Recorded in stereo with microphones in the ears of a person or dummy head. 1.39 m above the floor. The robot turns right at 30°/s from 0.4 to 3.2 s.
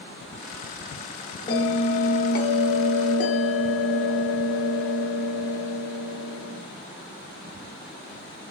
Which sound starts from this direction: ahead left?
A bell, at 1.5 s.